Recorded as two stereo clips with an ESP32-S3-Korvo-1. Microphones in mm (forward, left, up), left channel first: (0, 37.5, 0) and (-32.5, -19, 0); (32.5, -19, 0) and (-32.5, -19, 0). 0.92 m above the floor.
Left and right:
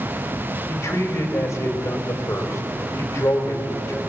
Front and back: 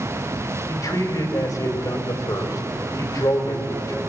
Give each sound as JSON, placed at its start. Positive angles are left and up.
{"t": 0.7, "sound": "a man speaking", "azimuth_deg": 15, "distance_m": 4.0}